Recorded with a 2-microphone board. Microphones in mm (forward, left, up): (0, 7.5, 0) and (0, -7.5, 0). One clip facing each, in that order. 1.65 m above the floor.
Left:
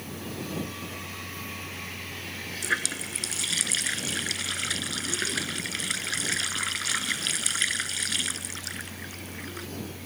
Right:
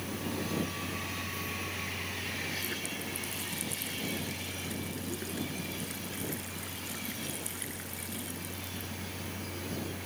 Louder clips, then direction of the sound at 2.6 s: Left 8 dB; 75° left (ahead or behind).